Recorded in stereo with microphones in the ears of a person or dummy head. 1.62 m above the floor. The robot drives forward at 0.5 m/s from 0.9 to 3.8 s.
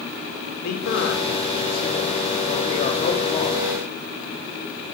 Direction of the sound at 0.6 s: 55° left (ahead or behind).